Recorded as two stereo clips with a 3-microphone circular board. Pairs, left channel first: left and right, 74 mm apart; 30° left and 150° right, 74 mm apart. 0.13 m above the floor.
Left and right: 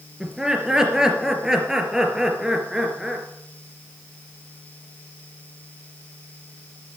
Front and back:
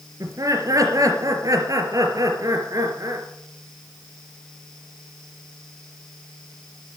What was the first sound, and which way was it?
Laughter, 170° right.